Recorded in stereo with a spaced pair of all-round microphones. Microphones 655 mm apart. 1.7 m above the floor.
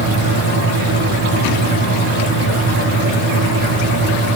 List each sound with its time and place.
0.0 s a fan: 15° left (ahead or behind), 3.5 m